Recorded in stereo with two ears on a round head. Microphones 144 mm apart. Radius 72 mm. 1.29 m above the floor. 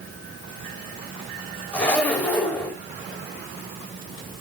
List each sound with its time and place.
1.7 s a zipper: 10° left (ahead or behind), 6 m